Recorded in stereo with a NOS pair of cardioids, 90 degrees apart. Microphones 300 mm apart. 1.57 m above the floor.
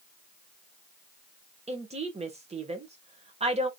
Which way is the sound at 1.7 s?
25° right.